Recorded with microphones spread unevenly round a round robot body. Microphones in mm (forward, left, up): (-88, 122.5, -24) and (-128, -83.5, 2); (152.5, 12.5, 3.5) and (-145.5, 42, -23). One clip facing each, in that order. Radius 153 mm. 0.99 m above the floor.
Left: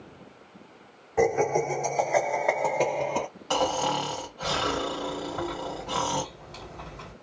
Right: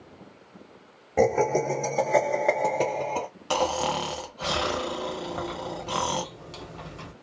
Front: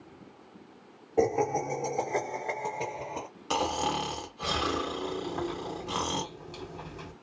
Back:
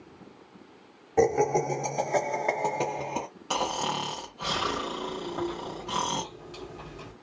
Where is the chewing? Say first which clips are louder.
Left 1 dB, back 1 dB; 85° right, 1.3 m.